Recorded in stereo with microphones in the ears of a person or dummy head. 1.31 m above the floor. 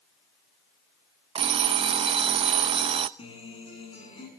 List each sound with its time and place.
1.4 s an alarm clock: 35° right (ahead or behind), 0.7 m
3.2 s a guitar: 30° left (ahead or behind), 7.5 m